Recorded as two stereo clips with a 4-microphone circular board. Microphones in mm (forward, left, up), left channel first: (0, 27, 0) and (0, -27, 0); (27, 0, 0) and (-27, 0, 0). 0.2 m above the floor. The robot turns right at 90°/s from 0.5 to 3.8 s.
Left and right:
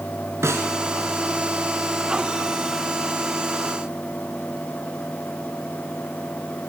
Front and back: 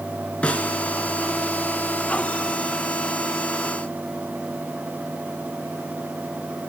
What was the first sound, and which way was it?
A snare drum, 65° right.